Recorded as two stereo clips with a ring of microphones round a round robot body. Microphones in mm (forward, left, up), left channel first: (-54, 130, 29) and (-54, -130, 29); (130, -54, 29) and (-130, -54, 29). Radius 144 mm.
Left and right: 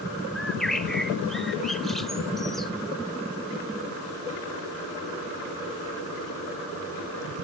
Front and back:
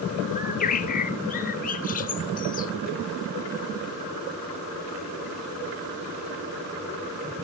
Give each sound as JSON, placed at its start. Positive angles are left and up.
{"t": 0.3, "sound": "a bird", "azimuth_deg": 0, "distance_m": 0.7}